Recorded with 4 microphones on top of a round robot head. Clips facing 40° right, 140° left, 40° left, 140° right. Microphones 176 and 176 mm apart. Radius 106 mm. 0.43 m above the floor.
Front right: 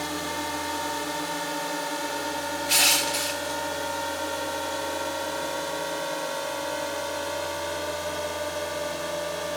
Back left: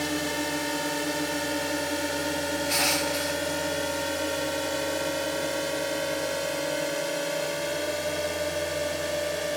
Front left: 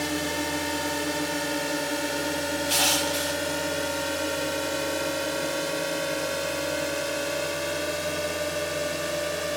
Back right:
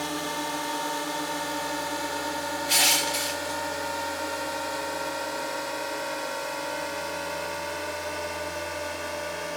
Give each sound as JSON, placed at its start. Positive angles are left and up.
{"t": 0.0, "sound": "a drone", "azimuth_deg": 95}
{"t": 2.7, "sound": "crushing", "azimuth_deg": -75}